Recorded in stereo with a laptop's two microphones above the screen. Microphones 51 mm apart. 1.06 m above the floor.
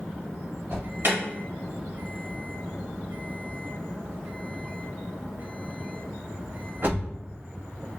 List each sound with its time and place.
0.7 s an alarm: 55° right (ahead or behind), 1.3 m